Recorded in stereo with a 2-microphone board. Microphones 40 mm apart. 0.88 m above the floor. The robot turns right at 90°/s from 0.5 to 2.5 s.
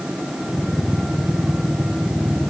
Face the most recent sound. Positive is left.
No sound to turn to.